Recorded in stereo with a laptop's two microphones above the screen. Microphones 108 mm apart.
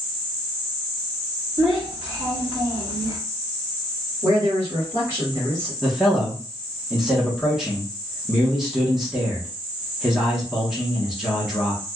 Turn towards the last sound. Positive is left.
turn(degrees=-5)  # may be behind; listen again after turning